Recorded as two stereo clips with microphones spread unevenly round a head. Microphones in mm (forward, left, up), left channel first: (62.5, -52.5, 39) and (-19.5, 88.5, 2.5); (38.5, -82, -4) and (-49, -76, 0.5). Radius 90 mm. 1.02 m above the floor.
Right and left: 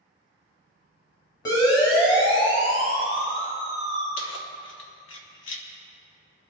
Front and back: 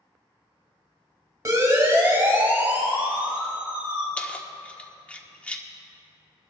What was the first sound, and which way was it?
A siren, 130° right.